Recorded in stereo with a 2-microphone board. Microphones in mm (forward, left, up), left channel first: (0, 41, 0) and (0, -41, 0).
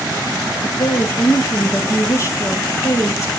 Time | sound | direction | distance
0.6 | a woman speaking | 35° left (ahead or behind) | 1.4 m